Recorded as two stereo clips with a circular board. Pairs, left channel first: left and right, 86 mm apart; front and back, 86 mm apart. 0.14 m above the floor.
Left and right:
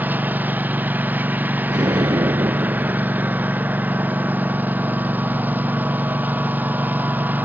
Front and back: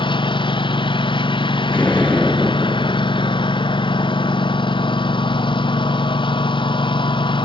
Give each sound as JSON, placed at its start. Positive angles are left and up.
{"t": 0.0, "sound": "a lawn mower", "azimuth_deg": -20}
{"t": 1.7, "sound": "an explosion", "azimuth_deg": -70}